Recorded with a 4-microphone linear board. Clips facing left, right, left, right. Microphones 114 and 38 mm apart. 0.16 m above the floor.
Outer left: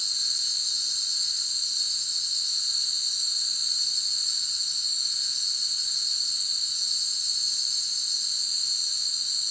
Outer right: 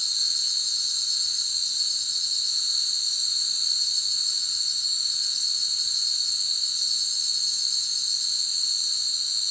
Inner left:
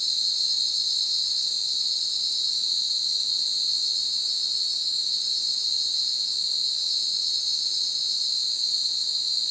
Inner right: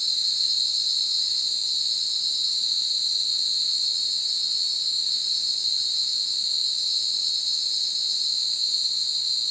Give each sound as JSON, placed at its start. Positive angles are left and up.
{"t": 0.0, "sound": "an insect", "side_deg": -65, "distance_m": 2.5}